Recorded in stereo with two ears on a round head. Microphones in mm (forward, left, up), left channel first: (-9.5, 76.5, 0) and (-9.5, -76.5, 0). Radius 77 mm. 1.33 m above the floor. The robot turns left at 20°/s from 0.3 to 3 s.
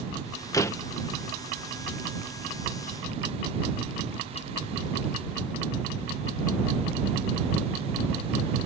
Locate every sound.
0.5 s a door slam: 20° left (ahead or behind); by 0.9 s 15° left (ahead or behind)